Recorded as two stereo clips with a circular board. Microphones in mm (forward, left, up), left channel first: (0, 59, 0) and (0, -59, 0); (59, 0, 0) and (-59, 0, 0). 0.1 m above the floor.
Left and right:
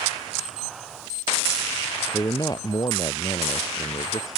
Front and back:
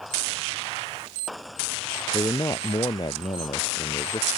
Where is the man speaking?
45° left.